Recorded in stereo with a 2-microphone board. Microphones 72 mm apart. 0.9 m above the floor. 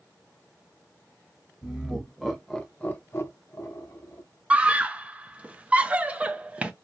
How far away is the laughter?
About 1.2 m.